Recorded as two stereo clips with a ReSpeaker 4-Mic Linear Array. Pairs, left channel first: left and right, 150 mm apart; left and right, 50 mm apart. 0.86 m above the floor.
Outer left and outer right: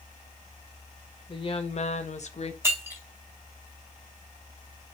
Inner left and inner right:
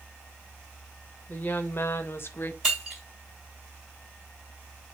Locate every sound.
1.3 s a woman speaking: 35° left (ahead or behind), 0.6 m; by 2.5 s 45° left (ahead or behind), 0.7 m
2.6 s breaking glass: 15° right (ahead or behind), 2.5 m